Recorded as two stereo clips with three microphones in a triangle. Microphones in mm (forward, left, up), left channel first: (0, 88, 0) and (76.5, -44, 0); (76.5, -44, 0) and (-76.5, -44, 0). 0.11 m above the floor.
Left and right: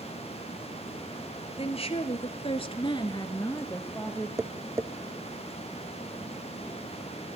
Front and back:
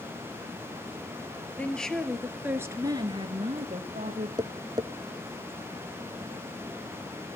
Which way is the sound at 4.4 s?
125° right.